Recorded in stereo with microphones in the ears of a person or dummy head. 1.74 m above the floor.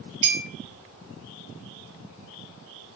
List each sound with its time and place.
0.2 s a clink: 65° right (ahead or behind), 1.2 m